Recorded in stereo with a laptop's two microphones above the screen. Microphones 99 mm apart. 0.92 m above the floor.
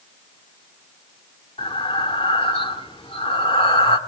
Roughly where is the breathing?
Left.